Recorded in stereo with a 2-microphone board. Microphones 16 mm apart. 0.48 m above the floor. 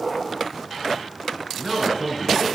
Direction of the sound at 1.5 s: 35° right (ahead or behind).